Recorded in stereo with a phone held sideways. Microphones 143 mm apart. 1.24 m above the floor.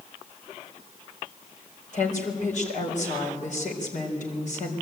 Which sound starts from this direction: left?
A woman speaking, at 1.9 s.